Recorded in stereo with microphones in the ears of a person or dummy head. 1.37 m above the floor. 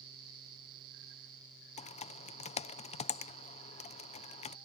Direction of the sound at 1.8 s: 35° left (ahead or behind).